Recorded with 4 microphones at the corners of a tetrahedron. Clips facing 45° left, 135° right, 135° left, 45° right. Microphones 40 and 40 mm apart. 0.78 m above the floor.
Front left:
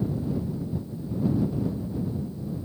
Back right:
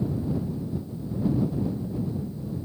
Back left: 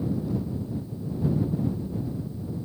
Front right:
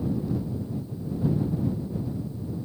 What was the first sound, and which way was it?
Only background noise.